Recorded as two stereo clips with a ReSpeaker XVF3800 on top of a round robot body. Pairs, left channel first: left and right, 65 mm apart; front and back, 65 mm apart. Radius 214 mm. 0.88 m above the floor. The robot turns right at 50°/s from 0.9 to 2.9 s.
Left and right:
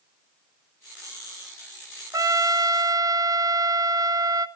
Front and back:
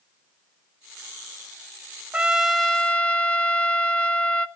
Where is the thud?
No thud in this recording.